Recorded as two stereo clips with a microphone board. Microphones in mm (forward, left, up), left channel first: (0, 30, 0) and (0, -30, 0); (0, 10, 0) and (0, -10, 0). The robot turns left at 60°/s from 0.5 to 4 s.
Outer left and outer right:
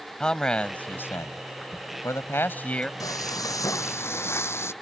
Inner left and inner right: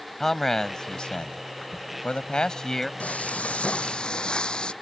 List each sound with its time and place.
0.2 s a man speaking: 165° left; by 2.9 s 20° left
3.0 s frying: 110° left; by 4.7 s 50° left